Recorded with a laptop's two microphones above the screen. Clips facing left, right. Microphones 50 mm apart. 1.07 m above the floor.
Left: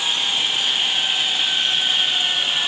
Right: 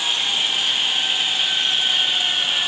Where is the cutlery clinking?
I don't hear cutlery clinking.